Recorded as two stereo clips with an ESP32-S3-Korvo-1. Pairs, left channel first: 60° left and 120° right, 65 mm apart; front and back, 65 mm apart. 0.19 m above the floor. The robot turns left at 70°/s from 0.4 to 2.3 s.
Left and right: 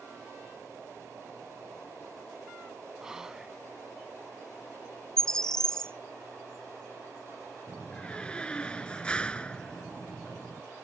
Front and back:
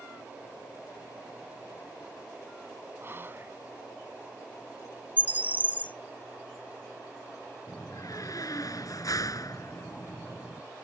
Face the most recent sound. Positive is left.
turn(degrees=-15)